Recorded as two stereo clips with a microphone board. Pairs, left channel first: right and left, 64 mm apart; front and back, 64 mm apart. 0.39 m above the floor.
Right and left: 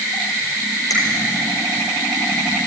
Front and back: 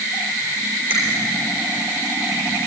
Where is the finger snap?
115° right, 6 m.